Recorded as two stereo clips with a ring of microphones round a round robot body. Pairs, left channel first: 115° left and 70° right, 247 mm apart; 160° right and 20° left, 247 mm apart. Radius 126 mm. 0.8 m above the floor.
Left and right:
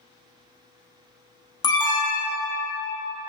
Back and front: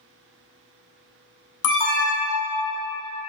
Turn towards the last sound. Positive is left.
turn(degrees=-170)